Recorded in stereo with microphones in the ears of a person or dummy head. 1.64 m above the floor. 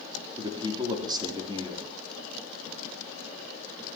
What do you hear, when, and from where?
0.4 s a man speaking: 30° right (ahead or behind), 3 m